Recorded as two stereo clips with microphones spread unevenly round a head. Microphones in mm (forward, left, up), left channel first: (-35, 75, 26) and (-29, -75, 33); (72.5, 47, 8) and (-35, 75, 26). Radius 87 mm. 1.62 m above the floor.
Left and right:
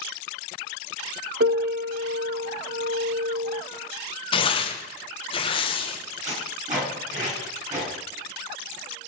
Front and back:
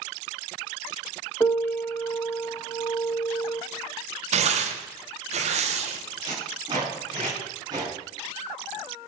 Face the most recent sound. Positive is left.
turn(degrees=-130)